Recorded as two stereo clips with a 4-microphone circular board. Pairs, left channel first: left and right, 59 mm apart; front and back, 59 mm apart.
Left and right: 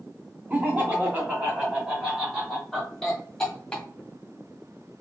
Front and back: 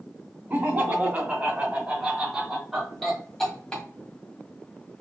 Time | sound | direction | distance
0.5 | laughter | 145° right | 2 m